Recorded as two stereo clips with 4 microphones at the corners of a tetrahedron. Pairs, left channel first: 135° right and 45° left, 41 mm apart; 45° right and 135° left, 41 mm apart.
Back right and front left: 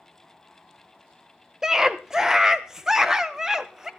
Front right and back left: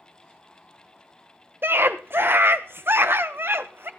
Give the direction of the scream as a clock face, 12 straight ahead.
8 o'clock.